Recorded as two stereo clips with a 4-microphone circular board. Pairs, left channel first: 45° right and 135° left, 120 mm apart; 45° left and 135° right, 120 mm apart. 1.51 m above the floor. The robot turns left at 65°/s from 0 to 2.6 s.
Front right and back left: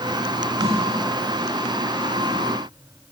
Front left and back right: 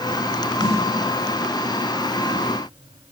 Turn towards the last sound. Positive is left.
turn(degrees=-45)